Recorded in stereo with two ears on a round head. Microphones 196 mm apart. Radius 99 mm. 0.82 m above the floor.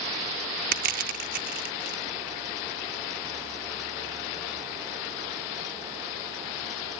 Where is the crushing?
40° right (ahead or behind).